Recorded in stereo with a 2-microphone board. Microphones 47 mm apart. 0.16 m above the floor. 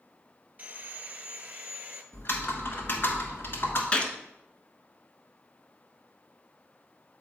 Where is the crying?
I don't hear crying.